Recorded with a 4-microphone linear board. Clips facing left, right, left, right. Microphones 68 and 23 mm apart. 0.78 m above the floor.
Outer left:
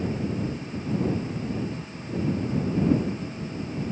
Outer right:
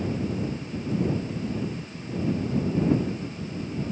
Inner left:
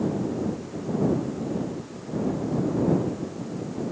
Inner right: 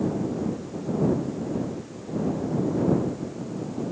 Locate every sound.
Only background noise.